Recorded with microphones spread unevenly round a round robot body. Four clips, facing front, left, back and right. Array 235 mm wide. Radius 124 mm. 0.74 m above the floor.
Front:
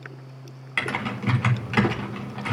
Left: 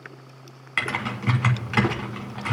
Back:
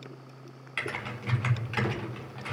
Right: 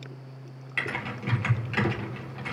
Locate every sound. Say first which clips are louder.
0.8 s typing on a keyboard: left 5 dB, front 8 dB; 35° left, 1.7 m